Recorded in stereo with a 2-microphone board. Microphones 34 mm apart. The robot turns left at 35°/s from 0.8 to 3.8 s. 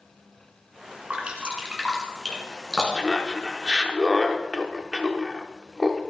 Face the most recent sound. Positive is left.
turn(degrees=-10)